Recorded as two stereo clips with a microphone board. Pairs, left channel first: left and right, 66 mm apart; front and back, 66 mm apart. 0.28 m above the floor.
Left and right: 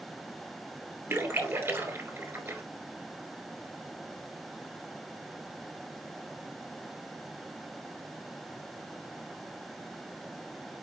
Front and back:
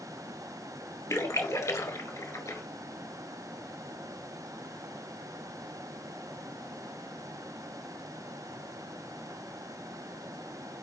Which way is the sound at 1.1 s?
40° right.